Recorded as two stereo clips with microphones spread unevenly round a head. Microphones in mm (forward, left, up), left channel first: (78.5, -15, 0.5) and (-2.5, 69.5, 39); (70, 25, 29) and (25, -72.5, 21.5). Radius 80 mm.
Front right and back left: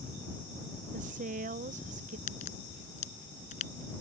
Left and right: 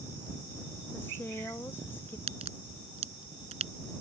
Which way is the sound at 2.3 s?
90° right.